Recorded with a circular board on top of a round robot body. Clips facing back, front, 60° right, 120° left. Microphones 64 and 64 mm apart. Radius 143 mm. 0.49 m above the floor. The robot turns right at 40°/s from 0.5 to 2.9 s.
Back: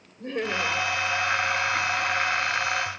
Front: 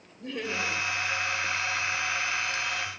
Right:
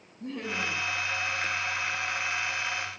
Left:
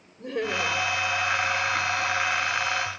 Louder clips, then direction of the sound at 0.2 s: Back 4 dB, left 6 dB; 125° left.